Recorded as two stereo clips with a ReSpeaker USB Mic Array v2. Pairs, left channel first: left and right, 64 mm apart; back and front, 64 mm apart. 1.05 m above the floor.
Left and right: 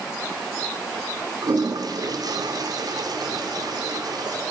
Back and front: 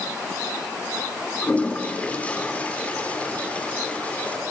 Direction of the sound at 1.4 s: 110° right.